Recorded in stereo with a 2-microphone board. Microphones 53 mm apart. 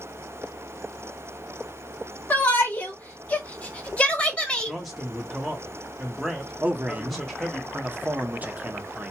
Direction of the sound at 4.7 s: Centre (ahead or behind).